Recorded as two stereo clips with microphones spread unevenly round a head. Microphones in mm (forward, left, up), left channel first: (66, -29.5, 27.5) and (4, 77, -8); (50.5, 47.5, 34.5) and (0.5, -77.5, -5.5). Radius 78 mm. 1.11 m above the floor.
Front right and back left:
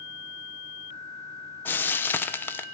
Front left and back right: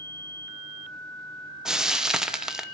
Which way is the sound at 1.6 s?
150° right.